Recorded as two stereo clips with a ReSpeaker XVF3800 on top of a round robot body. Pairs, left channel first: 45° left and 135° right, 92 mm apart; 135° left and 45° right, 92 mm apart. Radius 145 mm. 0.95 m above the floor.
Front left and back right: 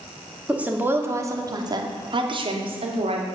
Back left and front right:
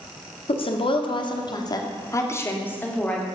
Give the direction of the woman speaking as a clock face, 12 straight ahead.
7 o'clock.